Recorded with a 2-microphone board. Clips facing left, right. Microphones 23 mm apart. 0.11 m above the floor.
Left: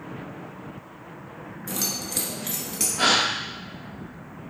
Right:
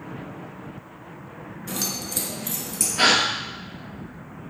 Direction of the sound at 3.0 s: 50° right (ahead or behind).